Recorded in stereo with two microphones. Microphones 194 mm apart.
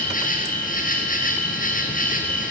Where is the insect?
45° left (ahead or behind), 3.5 m.